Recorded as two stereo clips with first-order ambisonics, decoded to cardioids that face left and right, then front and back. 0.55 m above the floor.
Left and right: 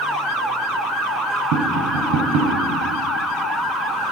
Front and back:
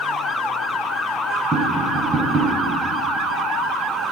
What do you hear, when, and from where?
1.5 s tapping: 110° right, 1.3 m